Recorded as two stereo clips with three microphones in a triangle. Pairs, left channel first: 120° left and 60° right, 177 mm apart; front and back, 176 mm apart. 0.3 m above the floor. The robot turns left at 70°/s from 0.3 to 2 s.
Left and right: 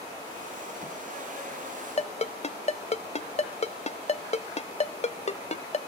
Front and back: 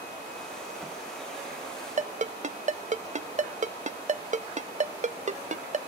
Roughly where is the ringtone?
Behind left.